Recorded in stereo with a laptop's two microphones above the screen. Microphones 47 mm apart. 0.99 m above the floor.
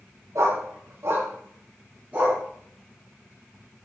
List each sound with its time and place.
0.3 s a dog barking: 75° right (ahead or behind), 2 m; by 2.4 s 30° right (ahead or behind), 4 m